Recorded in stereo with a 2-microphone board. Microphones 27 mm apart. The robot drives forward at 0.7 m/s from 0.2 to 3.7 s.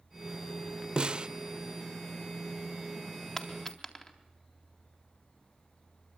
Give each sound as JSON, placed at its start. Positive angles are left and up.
{"t": 1.0, "sound": "a snare drum", "side_deg": -35, "distance_m": 0.9}
{"t": 3.4, "sound": "a dropped coin", "side_deg": 15, "distance_m": 4.0}